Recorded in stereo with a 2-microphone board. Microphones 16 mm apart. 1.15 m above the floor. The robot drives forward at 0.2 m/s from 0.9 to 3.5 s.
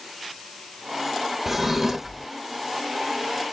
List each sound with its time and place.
1.5 s a drawer: 15° right (ahead or behind), 0.8 m; by 2.3 s 20° right (ahead or behind), 0.7 m